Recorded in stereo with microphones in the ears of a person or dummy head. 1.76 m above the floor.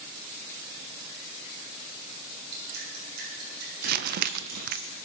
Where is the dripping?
55° right (ahead or behind), 7.5 m.